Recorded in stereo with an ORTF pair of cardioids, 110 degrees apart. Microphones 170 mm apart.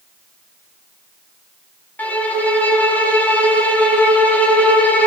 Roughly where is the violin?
Ahead.